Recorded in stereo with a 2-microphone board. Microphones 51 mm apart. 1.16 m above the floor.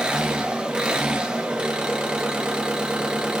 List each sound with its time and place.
0.0 s an engine running: 20° right (ahead or behind), 0.8 m